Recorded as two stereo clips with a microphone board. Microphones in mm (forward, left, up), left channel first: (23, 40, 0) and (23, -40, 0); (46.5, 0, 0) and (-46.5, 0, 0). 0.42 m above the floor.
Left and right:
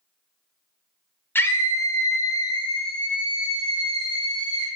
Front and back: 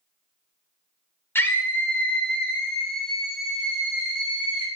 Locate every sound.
1.4 s a scream: 50° left, 1.0 m; by 4.7 s 100° left, 2 m